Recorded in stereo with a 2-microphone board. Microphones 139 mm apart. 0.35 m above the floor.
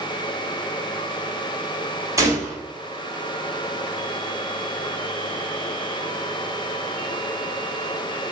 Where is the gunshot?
20° right (ahead or behind), 1.2 m.